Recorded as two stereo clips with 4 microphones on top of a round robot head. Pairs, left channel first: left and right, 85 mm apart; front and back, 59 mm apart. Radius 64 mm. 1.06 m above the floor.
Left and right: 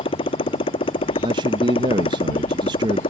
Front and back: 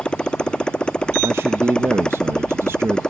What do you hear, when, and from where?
0.0 s a motorcycle: 75° left; by 3.1 s 80° left
1.2 s a man speaking: 125° right